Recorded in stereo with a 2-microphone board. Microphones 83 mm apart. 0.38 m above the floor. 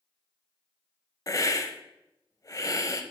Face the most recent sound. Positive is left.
turn(degrees=40)  # may be behind; listen again after turning